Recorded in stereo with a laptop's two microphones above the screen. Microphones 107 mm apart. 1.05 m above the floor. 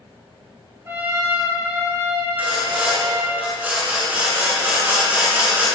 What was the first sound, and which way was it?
A trumpet, 25° right (ahead or behind).